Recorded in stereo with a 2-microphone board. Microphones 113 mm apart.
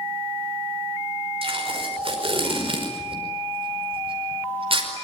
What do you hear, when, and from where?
1.4 s tape being pulled: 55° right (ahead or behind), 5 m